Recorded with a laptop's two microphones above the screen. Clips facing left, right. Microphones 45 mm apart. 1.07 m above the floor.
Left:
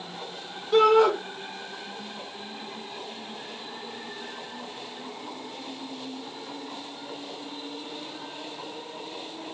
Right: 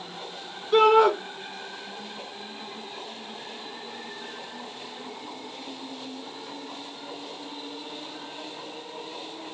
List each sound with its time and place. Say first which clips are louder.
0.7 s a shout: right 1 dB; 5° right (ahead or behind), 1.4 m